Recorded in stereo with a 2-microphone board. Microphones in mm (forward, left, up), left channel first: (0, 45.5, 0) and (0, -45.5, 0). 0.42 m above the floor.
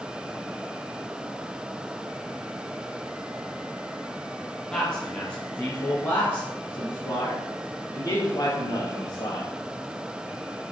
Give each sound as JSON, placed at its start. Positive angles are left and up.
{"t": 4.7, "sound": "a man speaking", "side_deg": 10, "distance_m": 3.0}